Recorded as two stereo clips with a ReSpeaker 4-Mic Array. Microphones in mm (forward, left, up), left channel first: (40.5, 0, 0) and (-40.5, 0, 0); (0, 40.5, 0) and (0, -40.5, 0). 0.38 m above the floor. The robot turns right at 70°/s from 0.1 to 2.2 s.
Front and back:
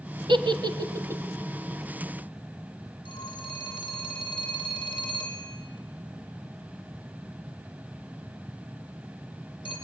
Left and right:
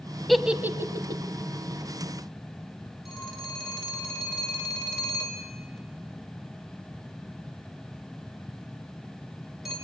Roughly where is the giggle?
Behind.